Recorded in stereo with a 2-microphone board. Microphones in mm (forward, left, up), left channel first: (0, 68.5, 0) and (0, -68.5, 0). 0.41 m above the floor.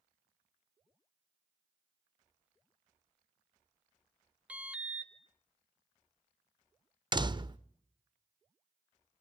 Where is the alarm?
10° right (ahead or behind), 1.2 m.